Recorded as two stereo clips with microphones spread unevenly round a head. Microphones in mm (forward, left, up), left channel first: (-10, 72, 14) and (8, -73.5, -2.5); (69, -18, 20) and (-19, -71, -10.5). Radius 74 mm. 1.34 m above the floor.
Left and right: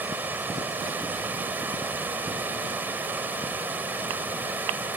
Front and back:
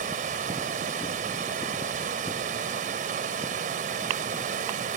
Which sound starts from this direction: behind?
Running water, at 0.0 s.